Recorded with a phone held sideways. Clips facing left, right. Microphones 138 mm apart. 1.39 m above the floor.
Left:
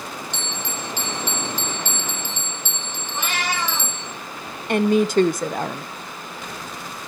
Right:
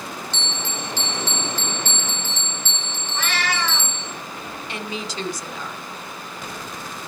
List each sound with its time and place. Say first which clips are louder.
0.3 s a bell: even; 15° left (ahead or behind), 3.5 m
3.1 s a cat meowing: even; 20° left (ahead or behind), 8 m
4.7 s a woman speaking: left 15 dB; 55° left (ahead or behind), 0.8 m